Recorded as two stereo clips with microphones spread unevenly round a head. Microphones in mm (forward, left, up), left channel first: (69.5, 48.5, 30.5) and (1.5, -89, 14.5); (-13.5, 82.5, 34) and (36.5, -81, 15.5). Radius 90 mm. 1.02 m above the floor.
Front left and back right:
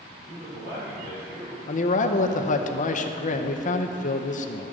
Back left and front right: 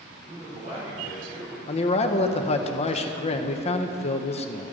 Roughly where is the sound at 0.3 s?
Behind right.